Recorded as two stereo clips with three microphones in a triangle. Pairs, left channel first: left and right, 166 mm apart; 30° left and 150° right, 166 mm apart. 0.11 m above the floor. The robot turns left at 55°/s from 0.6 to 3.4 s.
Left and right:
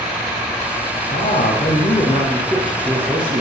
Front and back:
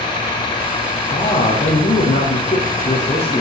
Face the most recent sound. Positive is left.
turn(degrees=-50)